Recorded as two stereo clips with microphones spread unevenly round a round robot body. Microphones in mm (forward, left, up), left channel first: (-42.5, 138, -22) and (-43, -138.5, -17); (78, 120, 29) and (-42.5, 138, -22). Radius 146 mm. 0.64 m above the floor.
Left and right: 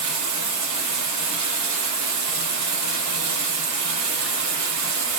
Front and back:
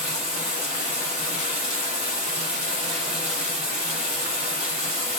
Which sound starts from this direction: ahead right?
Running water, at 0.0 s.